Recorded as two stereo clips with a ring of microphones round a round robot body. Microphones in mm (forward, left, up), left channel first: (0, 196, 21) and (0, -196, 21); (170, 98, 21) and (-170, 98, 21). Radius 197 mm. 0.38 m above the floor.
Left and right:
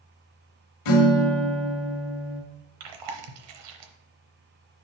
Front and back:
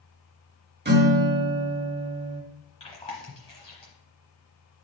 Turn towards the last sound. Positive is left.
turn(degrees=-75)